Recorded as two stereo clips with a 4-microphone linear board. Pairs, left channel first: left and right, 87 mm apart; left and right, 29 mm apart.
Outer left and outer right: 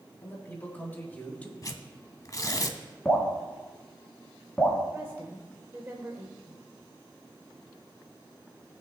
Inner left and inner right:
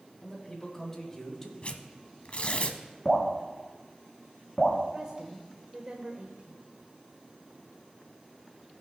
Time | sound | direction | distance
0.2 | a man speaking | 25° left (ahead or behind) | 3 m
1.6 | tearing paper | 45° left (ahead or behind) | 0.7 m
3.0 | dripping | 15° left (ahead or behind) | 3 m
4.9 | a woman speaking | 30° right (ahead or behind) | 1.0 m